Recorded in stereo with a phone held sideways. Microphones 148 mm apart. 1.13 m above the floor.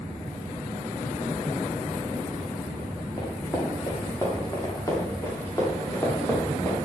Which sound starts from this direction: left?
Running footsteps, at 3.2 s.